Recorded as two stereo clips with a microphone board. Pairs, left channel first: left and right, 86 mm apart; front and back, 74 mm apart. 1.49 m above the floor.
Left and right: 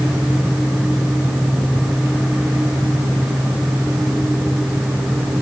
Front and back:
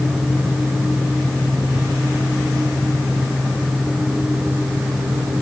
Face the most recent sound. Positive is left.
No sound to turn to.